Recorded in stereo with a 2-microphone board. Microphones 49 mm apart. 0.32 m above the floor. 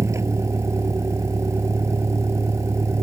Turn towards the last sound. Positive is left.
turn(degrees=-80)